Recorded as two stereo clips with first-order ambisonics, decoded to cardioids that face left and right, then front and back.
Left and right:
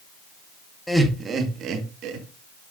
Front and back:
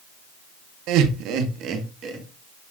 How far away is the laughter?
About 1.1 m.